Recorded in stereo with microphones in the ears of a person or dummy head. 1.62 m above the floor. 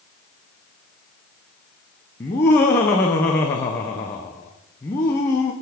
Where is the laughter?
15° left (ahead or behind), 0.5 m.